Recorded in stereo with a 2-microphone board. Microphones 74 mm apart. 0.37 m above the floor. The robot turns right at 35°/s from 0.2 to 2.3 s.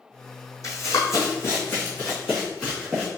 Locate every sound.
0.6 s running footsteps: 45° left (ahead or behind), 1.1 m; by 3.1 s 20° left (ahead or behind), 2.5 m